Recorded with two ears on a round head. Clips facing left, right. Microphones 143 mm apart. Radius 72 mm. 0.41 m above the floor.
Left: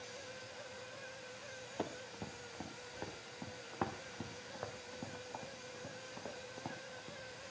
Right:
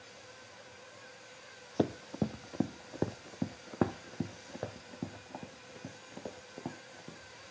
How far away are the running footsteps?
About 0.8 m.